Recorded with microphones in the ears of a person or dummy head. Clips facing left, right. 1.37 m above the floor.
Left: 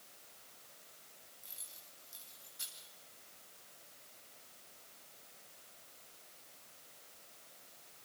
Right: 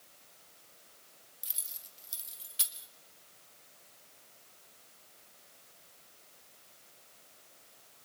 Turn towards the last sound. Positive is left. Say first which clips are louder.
# even
turn(degrees=-80)